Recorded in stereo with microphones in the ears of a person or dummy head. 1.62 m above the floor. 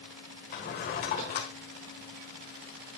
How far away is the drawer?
About 1.6 m.